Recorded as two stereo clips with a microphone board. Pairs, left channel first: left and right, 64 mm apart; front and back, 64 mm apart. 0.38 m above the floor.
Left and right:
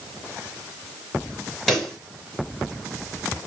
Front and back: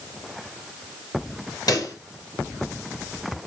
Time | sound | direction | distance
1.7 | a pop | 5° left | 2 m